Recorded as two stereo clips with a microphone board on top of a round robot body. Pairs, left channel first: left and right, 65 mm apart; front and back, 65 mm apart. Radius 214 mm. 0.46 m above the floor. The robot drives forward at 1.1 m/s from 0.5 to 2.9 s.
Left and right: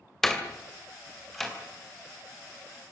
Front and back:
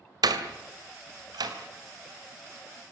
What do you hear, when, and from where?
0.2 s a door slam: 175° left, 2.5 m